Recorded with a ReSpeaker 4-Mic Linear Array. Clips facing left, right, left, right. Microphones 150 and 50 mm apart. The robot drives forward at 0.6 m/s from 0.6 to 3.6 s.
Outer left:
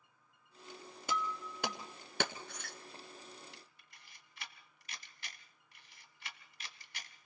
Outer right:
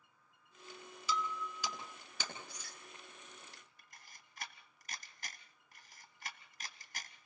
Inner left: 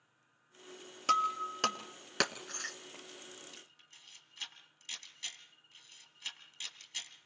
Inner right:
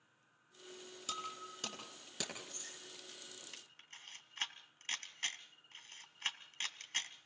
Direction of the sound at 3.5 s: 45° right (ahead or behind).